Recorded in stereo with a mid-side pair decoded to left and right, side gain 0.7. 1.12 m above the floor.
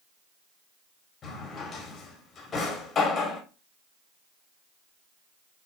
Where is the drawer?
35° left, 1.9 m.